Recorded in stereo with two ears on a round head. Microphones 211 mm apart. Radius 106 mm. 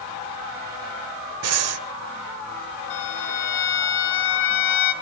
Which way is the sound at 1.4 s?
65° right (ahead or behind).